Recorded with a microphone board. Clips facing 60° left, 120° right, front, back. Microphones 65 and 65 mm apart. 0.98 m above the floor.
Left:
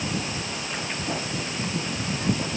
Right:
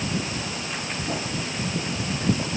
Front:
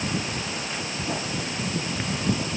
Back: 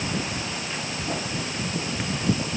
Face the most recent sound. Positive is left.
No sound to turn to.